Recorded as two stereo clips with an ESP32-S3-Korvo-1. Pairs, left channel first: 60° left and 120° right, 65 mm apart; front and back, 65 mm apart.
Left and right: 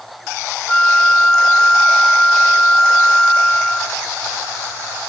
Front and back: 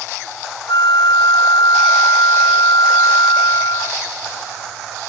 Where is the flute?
15° right.